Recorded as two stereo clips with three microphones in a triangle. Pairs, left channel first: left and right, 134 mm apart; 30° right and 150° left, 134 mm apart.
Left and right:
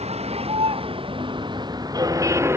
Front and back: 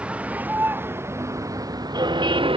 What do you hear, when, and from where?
0.0 s a vehicle: 130° right; by 2.6 s 165° right